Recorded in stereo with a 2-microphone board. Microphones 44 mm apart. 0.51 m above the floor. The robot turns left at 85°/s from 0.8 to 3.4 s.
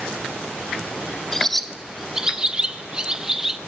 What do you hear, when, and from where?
1.3 s a bird: 10° left (ahead or behind), 0.8 m; by 3.6 s 10° right (ahead or behind), 0.8 m